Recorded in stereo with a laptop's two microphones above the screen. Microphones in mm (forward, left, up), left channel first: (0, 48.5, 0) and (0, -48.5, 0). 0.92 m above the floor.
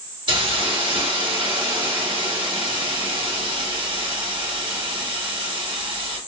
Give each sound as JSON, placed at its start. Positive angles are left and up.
{"t": 0.3, "sound": "a hiss", "side_deg": -55, "distance_m": 2.0}